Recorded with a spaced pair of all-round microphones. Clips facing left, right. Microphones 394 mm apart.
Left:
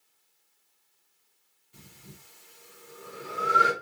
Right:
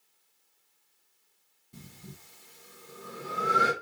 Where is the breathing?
55° right (ahead or behind), 1.9 m.